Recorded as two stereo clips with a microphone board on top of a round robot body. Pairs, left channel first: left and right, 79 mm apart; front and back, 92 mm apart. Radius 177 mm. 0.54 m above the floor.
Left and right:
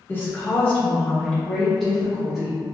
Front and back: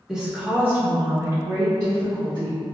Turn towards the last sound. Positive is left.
turn(degrees=-170)